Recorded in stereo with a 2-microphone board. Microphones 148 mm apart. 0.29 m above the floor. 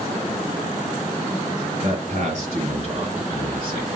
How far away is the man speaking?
About 5 m.